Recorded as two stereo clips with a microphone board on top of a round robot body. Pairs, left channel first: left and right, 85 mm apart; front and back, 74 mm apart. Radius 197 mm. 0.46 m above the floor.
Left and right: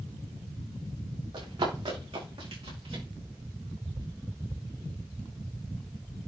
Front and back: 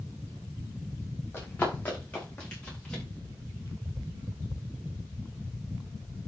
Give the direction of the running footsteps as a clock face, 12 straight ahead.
2 o'clock.